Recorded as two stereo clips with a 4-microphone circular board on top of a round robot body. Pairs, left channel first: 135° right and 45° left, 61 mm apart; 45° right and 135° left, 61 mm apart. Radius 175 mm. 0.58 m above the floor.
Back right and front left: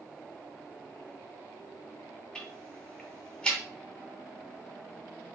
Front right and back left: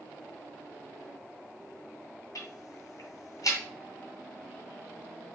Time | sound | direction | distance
2.4 | ticking | 60° right | 1.9 m